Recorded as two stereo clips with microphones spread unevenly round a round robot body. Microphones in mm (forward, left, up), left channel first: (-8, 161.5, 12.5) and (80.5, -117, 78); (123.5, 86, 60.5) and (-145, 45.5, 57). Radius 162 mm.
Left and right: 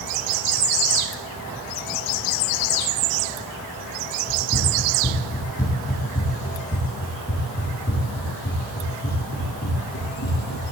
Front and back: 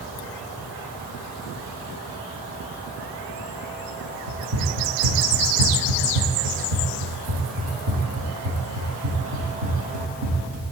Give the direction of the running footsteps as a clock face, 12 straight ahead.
5 o'clock.